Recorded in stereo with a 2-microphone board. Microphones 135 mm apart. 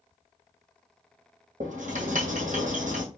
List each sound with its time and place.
1.6 s writing: 70° right (ahead or behind), 2 m